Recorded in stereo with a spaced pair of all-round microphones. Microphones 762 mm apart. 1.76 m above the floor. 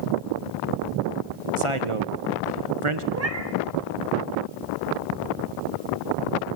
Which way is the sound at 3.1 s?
20° right (ahead or behind).